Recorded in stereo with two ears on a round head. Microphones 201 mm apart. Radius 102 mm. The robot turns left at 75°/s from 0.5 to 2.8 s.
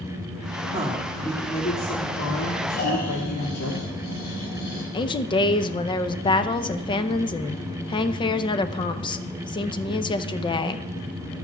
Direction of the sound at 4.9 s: 20° left (ahead or behind).